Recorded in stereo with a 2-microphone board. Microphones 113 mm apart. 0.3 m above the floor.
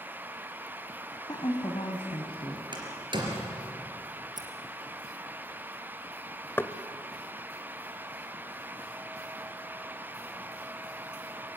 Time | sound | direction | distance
1.3 | a woman speaking | 35° left (ahead or behind) | 1.8 m
2.7 | a door slam | 45° right (ahead or behind) | 3.5 m
4.4 | scissors | 35° right (ahead or behind) | 2.5 m
6.6 | knocking | 20° left (ahead or behind) | 0.7 m